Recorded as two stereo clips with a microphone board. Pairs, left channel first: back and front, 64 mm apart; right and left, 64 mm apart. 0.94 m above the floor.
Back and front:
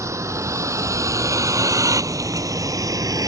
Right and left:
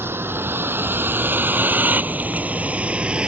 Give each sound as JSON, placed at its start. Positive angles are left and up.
{"t": 0.0, "sound": "a vehicle", "azimuth_deg": 35}